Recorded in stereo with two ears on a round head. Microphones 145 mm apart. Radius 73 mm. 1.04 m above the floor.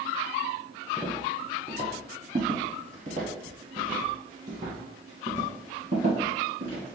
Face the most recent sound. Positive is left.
turn(degrees=-45)  # may be behind; listen again after turning